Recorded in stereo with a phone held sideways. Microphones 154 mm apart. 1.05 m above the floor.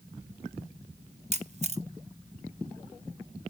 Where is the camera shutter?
45° right (ahead or behind), 0.8 m.